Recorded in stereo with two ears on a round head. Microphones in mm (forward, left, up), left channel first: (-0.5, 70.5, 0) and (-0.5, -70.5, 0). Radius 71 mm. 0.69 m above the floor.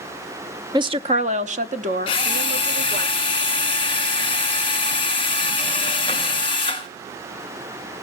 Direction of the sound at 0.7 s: 25° right (ahead or behind).